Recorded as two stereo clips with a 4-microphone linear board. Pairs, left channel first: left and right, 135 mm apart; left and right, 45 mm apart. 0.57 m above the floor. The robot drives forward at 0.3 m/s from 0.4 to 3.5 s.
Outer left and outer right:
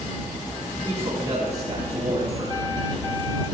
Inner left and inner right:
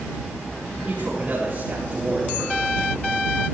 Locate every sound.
0.8 s a man speaking: 30° right (ahead or behind), 7 m